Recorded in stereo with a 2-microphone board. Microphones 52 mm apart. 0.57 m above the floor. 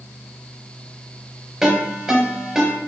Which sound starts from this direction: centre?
A ringtone, at 1.6 s.